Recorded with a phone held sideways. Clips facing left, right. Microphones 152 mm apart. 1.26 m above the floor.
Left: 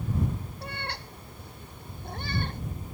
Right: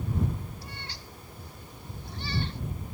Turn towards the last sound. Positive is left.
turn(degrees=50)  # may be behind; listen again after turning